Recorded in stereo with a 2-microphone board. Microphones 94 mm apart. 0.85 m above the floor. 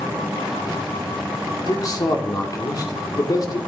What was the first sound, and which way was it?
A man speaking, 45° left (ahead or behind).